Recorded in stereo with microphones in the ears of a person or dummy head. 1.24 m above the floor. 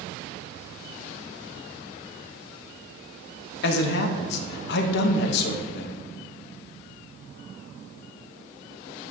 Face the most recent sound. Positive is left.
turn(degrees=65)  # may be behind; listen again after turning